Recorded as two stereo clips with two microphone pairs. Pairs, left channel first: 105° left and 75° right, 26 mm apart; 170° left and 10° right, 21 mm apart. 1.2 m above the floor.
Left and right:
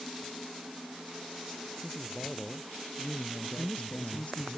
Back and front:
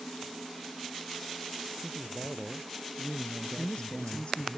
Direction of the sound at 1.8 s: 40° left.